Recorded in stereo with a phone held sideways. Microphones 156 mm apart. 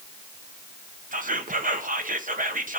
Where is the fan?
No fan in this recording.